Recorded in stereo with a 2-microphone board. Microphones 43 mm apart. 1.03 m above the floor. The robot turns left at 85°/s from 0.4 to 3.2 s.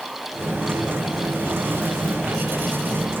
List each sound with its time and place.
Only background noise.